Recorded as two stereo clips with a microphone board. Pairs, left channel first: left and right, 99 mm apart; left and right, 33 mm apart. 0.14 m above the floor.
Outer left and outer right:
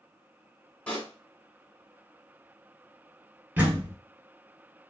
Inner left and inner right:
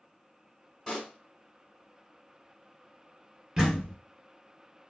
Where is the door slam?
15° right (ahead or behind), 1.0 m.